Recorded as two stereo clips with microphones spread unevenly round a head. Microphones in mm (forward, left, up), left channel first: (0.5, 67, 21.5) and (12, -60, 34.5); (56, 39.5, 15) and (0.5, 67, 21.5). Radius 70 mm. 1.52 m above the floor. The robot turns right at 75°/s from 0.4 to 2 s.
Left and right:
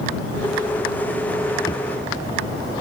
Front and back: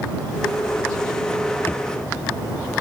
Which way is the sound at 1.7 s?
30° left.